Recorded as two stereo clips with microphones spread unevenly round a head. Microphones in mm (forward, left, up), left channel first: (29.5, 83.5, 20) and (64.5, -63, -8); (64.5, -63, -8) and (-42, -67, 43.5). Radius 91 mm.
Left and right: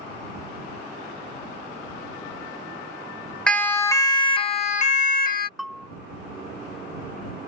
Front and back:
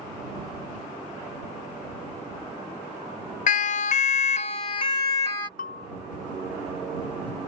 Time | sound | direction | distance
3.5 | a siren | 20° left | ?
5.6 | a bell | 20° left | ?